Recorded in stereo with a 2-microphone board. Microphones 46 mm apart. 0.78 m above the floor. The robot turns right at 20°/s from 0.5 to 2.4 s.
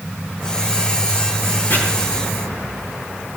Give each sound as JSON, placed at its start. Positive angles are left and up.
{"t": 1.7, "sound": "chopping", "side_deg": 50, "distance_m": 9.0}